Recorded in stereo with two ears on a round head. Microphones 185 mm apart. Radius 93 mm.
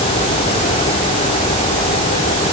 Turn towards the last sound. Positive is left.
No sound to turn to.